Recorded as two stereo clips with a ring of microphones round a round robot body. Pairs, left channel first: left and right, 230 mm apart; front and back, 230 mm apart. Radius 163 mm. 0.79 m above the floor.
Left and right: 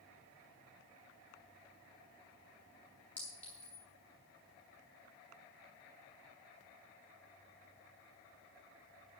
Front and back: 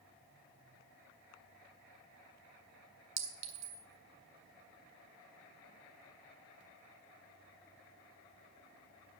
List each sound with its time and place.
3.2 s a clink: 175° left, 1.3 m